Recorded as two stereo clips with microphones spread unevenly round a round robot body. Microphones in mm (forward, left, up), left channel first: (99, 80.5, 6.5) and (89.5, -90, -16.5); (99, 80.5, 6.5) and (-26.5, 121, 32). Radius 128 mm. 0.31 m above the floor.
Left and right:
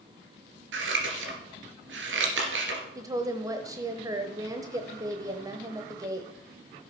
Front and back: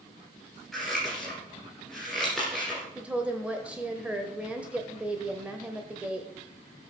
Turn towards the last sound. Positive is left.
turn(degrees=-105)